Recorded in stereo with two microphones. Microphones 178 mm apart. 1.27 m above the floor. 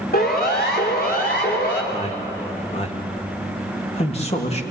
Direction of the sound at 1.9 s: 35° left (ahead or behind).